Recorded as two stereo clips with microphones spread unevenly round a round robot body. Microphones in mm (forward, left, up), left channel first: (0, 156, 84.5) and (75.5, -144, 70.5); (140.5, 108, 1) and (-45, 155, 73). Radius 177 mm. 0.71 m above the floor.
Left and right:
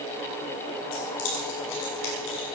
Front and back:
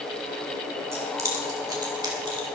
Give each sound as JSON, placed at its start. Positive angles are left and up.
{"t": 0.9, "sound": "keys jangling", "azimuth_deg": 90, "distance_m": 6.0}